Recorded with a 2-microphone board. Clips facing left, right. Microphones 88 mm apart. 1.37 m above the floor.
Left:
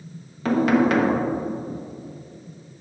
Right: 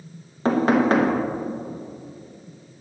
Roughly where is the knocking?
Right.